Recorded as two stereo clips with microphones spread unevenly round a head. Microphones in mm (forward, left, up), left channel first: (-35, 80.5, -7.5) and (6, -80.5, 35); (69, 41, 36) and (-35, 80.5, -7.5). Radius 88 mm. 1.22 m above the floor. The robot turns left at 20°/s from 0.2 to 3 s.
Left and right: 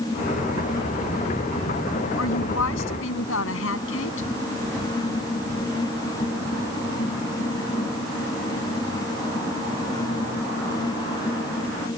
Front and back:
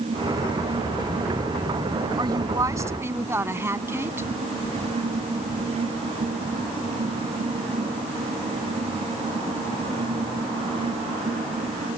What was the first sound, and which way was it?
A woman speaking, 105° left.